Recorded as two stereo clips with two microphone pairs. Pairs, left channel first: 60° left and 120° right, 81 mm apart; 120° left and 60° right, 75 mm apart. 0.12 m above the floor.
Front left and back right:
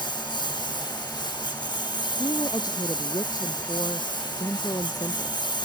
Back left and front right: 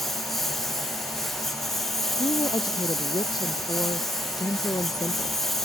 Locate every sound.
0.0 s a lawn mower: 35° left
2.2 s a woman speaking: 100° left